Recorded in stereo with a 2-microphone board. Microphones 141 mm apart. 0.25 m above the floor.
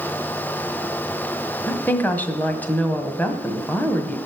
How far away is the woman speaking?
About 1.6 m.